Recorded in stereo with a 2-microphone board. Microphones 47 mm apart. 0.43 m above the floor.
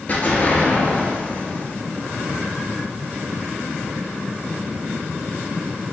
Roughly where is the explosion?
Left.